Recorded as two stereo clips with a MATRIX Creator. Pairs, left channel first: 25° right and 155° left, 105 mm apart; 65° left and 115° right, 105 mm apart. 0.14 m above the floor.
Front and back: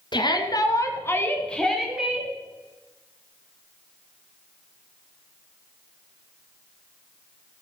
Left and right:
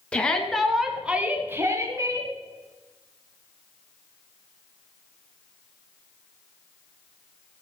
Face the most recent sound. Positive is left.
turn(degrees=-135)